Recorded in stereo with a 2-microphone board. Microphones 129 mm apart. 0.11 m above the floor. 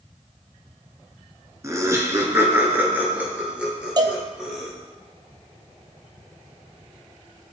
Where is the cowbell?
35° right (ahead or behind), 0.6 m.